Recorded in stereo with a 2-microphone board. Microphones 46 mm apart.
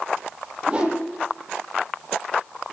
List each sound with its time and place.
0.7 s a whoosh: 30° right (ahead or behind), 9 m